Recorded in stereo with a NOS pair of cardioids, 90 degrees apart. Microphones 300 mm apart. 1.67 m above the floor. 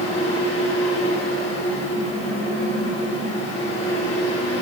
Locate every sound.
0.0 s a fan: 45° left, 6.5 m